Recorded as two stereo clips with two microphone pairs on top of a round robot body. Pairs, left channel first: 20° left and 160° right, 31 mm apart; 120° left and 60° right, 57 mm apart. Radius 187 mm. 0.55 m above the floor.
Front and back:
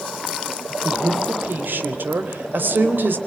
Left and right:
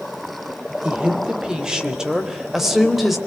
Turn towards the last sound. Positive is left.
turn(degrees=-150)